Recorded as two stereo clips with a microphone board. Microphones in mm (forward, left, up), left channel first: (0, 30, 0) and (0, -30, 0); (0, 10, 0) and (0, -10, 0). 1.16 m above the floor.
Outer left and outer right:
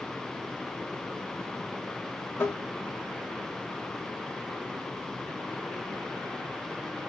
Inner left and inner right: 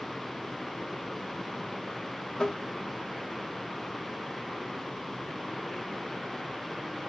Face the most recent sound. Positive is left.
turn(degrees=40)  # may be behind; listen again after turning